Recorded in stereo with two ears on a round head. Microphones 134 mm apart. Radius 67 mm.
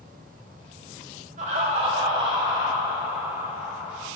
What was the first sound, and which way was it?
Laughter, 50° right (ahead or behind).